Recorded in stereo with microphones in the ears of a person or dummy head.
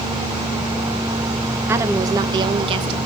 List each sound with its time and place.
1.7 s a woman speaking: 15° right (ahead or behind), 1.1 m; by 3.0 s 35° right (ahead or behind), 1.8 m